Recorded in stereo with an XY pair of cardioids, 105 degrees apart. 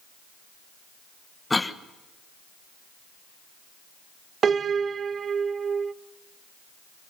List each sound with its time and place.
1.5 s a cough: 15° left, 1.2 m
4.4 s a piano: 45° right, 0.6 m